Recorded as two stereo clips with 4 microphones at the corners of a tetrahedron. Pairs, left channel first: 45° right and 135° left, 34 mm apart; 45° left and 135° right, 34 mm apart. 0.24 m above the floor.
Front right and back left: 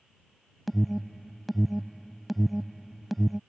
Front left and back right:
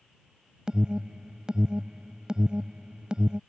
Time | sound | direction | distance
0.7 | an alarm | 130° right | ?